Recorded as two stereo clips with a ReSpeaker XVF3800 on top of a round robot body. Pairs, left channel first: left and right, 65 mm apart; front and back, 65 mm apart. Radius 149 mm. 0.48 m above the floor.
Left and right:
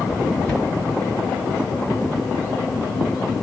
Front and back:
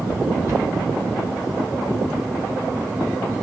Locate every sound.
0.5 s a cupboard door: 170° left, 1.6 m